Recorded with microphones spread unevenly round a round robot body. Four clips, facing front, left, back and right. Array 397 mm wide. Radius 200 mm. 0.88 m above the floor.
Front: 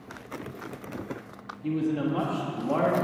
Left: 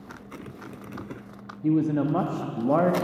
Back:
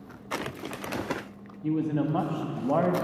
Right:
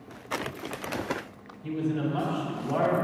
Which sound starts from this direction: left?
A man speaking, at 1.6 s.